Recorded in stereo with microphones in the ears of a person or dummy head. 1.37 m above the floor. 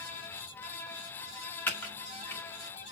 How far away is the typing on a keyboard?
About 2.0 m.